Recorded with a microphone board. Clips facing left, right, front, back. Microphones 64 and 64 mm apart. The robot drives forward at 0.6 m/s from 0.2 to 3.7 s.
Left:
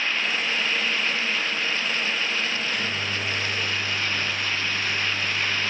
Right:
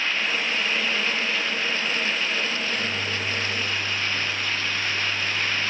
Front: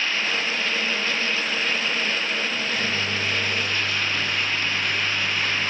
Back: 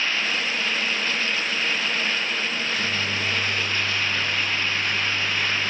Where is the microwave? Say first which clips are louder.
Even, even; 20° left, 6 m.